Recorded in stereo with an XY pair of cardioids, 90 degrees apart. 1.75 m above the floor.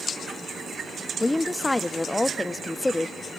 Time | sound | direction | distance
1.2 | a woman speaking | 15° left | 0.5 m